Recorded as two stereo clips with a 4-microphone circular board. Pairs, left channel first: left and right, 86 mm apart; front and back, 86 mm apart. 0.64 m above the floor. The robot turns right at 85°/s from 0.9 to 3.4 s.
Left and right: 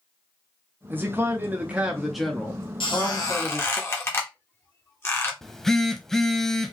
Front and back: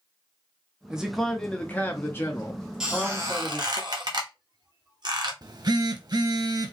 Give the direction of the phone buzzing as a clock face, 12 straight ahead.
6 o'clock.